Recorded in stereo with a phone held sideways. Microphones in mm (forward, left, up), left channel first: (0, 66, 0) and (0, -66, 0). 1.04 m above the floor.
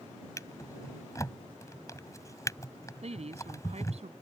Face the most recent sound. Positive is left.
turn(degrees=-55)  # may be behind; listen again after turning